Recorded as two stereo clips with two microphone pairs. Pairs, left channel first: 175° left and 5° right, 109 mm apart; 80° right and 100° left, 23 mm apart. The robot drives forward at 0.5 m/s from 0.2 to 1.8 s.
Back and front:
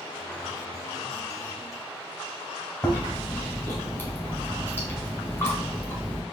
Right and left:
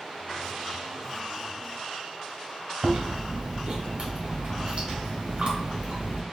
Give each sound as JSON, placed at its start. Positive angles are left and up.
{"t": 2.8, "sound": "chewing", "azimuth_deg": 115, "distance_m": 1.2}